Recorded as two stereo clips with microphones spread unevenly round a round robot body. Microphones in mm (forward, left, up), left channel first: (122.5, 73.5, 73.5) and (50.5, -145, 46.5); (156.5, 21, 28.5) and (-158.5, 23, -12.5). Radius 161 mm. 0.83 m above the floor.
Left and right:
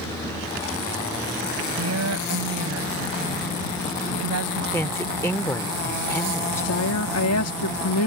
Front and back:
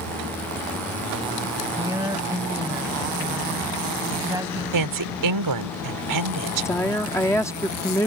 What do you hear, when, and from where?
1.8 s a woman speaking: 100° right
4.7 s a woman speaking: 155° left
6.7 s a woman speaking: 85° left